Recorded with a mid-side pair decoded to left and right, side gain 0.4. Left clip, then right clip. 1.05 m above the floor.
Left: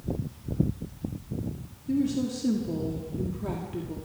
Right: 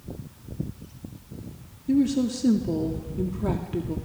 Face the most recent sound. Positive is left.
turn(degrees=-40)